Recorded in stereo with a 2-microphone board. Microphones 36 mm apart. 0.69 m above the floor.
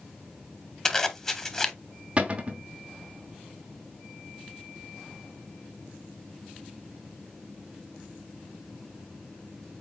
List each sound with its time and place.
0.8 s a zipper: 15° left (ahead or behind), 0.8 m
2.2 s a cupboard door: 35° right (ahead or behind), 1.0 m